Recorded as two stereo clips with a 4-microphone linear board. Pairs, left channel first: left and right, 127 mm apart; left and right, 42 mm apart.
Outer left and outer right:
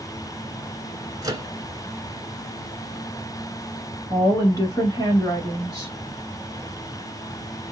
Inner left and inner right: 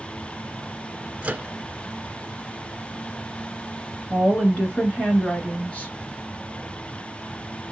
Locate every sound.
1.2 s a microwave: 30° right (ahead or behind), 1.2 m
4.1 s a woman speaking: 30° left (ahead or behind), 1.2 m